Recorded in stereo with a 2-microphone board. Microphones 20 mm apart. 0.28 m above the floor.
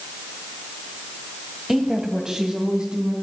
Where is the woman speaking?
20° right (ahead or behind), 1.9 m; by 3.1 s 60° right (ahead or behind), 3 m.